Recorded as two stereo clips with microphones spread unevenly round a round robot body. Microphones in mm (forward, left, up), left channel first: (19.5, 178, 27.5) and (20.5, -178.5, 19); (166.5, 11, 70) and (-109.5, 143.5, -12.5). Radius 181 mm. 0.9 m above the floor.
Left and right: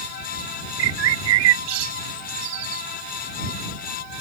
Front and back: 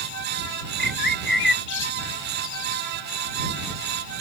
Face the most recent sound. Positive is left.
turn(degrees=-85)